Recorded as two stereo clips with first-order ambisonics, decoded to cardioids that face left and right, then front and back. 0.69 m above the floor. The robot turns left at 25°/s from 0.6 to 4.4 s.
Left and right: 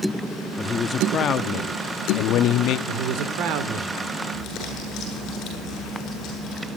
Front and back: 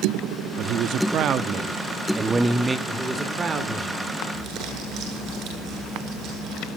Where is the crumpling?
140° left, 9.5 m.